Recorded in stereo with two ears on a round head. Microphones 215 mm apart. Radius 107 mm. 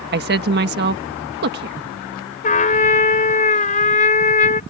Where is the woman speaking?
45° right (ahead or behind).